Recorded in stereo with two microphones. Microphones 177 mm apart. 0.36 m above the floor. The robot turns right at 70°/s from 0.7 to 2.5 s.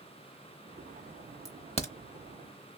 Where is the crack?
20° left (ahead or behind), 0.8 m; by 1.9 s 45° left (ahead or behind), 0.8 m.